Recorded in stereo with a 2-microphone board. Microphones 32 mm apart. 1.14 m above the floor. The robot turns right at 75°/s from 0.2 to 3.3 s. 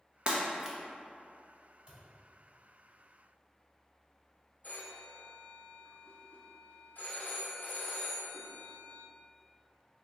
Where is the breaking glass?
40° right (ahead or behind), 0.7 m; by 0.8 s 5° right (ahead or behind), 0.7 m.